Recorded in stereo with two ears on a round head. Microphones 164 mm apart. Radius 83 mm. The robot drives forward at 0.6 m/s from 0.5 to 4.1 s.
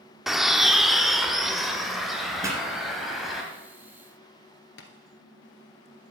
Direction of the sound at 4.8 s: 80° left.